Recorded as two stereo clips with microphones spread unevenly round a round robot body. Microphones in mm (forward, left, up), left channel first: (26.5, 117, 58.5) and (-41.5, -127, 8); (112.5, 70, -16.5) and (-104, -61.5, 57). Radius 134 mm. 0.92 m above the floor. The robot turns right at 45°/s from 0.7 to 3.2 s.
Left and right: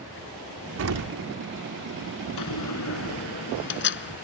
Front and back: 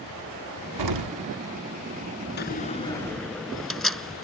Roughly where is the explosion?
Behind right.